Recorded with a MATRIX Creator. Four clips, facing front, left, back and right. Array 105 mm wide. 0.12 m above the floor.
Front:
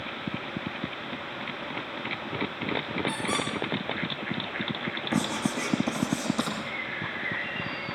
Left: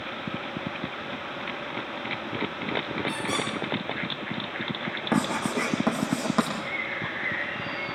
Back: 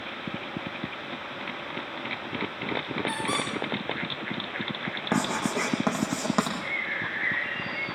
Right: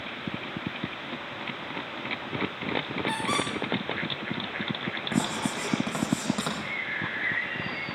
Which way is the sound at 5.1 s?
150° left.